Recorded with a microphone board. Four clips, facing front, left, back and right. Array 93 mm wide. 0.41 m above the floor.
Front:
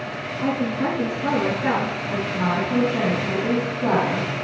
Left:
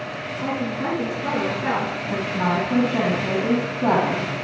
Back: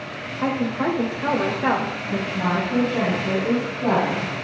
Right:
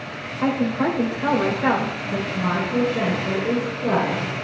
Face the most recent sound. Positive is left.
turn(degrees=90)